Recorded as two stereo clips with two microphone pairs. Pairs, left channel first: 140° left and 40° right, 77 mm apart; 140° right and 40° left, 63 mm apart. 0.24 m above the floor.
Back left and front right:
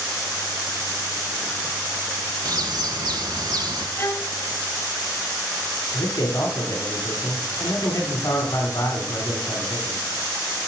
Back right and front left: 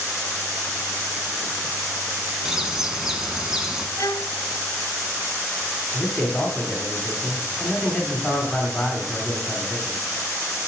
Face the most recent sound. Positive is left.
turn(degrees=160)